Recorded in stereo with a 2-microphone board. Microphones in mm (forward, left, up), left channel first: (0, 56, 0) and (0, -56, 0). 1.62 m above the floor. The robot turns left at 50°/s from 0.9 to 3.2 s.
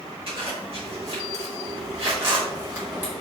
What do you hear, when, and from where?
0.3 s a zipper: 55° right (ahead or behind), 1.7 m; by 3.1 s 10° right (ahead or behind), 1.7 m